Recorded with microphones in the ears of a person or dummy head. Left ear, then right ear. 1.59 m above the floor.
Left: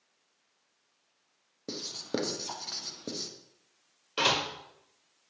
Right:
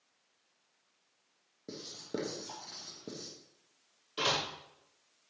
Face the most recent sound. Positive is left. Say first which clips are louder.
# left 5 dB
turn(degrees=30)  # may be behind; listen again after turning